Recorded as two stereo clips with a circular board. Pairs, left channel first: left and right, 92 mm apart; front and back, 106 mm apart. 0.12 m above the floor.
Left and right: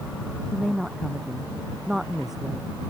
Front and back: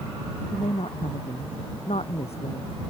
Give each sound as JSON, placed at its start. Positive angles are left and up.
{"t": 0.5, "sound": "a woman speaking", "azimuth_deg": -5}